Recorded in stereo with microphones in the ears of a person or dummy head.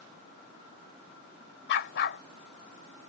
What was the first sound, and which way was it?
A dog barking, 60° left (ahead or behind).